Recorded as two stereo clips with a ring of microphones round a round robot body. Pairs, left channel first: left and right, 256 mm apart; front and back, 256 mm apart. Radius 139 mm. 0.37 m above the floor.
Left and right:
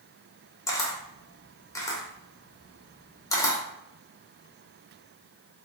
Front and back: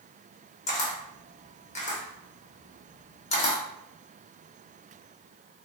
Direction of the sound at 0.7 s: 25° left.